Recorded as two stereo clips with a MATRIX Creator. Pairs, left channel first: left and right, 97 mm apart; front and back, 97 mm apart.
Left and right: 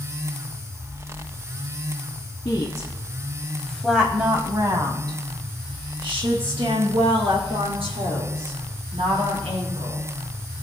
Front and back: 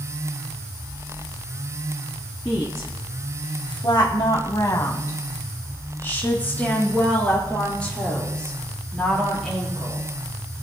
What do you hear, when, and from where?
2.5 s a woman speaking: 50° left, 1.9 m; by 10.0 s 85° right, 6 m